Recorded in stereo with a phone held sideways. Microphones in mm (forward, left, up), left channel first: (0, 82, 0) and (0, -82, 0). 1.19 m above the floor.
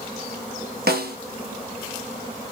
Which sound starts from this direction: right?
A snare drum, at 0.9 s.